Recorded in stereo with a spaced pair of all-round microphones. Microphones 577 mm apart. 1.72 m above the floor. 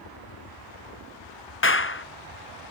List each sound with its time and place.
0.0 s a fan: 70° left (ahead or behind)
1.6 s a clap: 25° left (ahead or behind)